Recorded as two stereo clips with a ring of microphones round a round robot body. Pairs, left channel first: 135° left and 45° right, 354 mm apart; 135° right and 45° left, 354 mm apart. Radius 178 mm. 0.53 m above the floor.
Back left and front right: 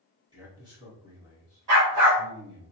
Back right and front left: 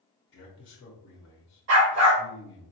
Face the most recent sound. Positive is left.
turn(degrees=-5)